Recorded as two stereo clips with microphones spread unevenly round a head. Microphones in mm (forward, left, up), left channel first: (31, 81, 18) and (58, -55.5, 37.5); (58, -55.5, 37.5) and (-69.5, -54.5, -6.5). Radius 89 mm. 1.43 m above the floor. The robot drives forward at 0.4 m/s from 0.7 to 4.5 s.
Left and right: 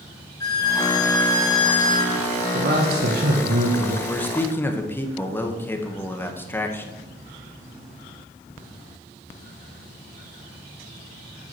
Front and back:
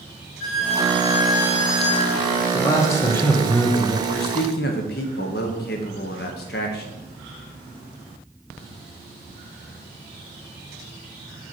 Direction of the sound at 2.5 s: 60° right.